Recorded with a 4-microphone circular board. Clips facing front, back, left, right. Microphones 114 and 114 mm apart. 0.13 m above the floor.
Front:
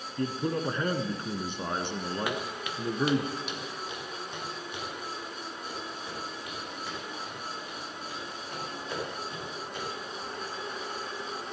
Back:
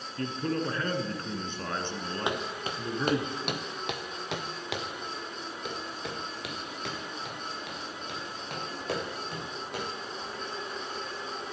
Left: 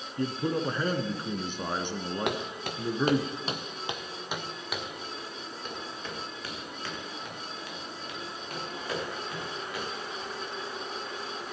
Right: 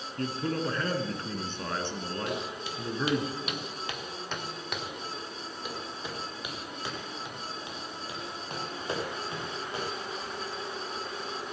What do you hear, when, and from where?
0.2 s a man speaking: 45° left, 1.4 m
2.3 s footsteps: 110° left, 1.7 m; by 9.9 s 150° right, 6.5 m